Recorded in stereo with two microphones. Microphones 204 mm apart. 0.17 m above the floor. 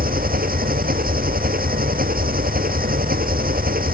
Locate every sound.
0.0 s an engine running: 45° right (ahead or behind)